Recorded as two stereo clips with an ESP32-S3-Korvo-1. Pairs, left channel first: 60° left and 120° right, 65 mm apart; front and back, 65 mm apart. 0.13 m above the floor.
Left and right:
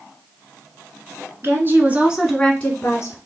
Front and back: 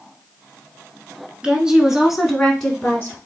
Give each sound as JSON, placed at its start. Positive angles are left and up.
{"t": 1.4, "sound": "a woman speaking", "azimuth_deg": -110, "distance_m": 1.5}